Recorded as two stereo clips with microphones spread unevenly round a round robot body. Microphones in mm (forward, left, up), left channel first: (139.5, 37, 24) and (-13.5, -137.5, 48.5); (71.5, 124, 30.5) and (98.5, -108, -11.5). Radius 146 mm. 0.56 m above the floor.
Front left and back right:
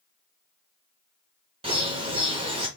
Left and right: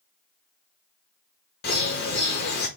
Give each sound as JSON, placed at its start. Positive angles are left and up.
{"t": 1.6, "sound": "a bird", "azimuth_deg": 155, "distance_m": 0.8}